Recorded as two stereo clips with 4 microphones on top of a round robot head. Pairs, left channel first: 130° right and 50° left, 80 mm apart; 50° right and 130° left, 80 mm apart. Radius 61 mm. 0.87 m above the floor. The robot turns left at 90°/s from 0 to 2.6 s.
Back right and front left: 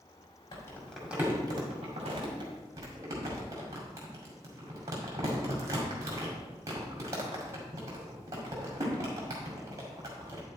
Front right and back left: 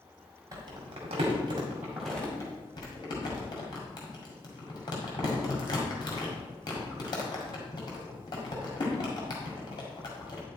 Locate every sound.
0.5 s crumpling: straight behind, 2.0 m; by 10.4 s 10° right, 2.0 m